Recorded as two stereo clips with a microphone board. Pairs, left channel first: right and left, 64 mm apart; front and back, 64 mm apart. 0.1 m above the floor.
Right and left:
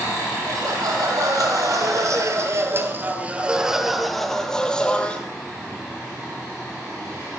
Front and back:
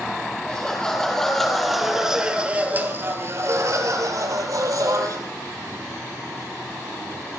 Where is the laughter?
70° left, 4 m; by 5.2 s 160° right, 3.5 m.